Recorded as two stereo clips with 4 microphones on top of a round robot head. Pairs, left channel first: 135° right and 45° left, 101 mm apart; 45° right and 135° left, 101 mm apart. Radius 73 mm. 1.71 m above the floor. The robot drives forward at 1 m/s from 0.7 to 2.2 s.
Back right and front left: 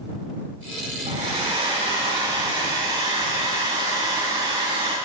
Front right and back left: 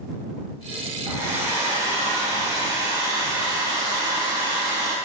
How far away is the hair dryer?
About 5.5 m.